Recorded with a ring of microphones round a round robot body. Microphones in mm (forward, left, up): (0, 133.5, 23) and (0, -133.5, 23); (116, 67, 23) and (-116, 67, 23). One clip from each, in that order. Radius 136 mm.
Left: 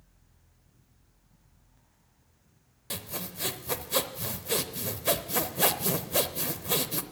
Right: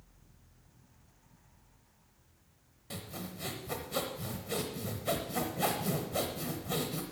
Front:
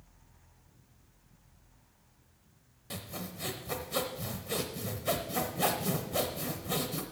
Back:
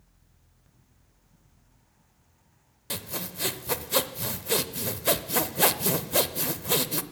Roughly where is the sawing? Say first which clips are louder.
Left 6 dB, back 7 dB; behind left.